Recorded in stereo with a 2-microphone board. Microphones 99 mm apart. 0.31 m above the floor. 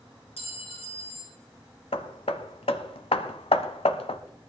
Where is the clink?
75° left (ahead or behind), 3.5 m.